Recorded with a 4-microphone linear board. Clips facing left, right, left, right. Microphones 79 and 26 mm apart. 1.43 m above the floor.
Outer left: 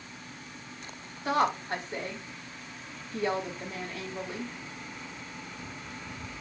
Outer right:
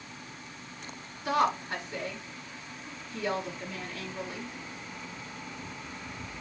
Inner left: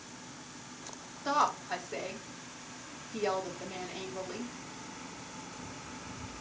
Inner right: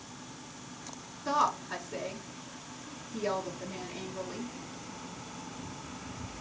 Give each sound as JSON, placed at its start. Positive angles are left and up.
{"t": 1.2, "sound": "a woman speaking", "side_deg": 50, "distance_m": 3.0}